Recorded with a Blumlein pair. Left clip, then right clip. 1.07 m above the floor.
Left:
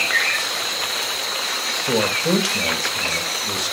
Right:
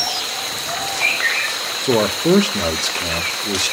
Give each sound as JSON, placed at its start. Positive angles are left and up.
{"t": 1.8, "sound": "a man speaking", "azimuth_deg": -65, "distance_m": 0.8}